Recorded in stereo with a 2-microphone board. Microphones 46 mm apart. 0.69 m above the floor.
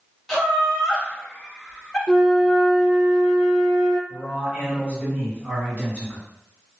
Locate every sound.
0.3 s laughter: centre (ahead or behind), 1.1 m
2.1 s a flute: 20° right (ahead or behind), 0.5 m
4.1 s a man speaking: 50° right (ahead or behind), 1.9 m